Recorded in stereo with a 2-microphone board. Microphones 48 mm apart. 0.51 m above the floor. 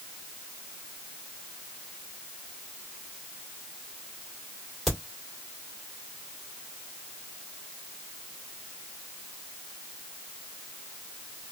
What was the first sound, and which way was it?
A crack, centre (ahead or behind).